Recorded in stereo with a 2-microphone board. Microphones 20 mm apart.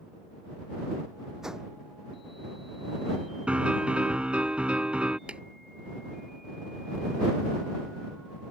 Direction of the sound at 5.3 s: 70° right (ahead or behind).